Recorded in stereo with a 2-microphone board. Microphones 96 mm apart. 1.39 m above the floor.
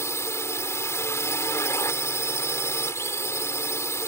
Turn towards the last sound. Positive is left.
turn(degrees=30)  # may be behind; listen again after turning